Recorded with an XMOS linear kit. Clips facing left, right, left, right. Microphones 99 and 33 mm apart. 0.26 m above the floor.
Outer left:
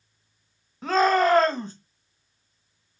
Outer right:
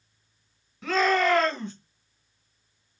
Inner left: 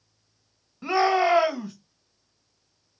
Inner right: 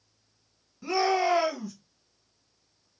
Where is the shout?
35° left (ahead or behind), 1.6 m.